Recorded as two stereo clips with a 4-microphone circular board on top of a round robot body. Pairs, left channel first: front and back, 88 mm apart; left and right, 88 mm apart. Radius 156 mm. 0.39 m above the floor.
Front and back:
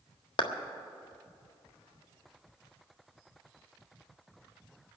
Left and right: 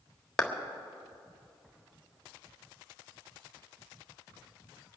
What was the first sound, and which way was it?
A clap, 10° left.